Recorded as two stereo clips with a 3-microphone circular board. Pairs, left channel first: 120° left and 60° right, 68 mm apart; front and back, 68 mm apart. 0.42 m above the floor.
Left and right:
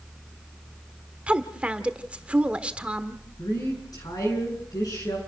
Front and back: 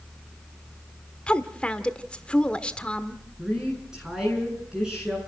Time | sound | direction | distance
1.3 | a woman speaking | 30° right | 1.2 m
3.4 | a woman speaking | 100° left | 6 m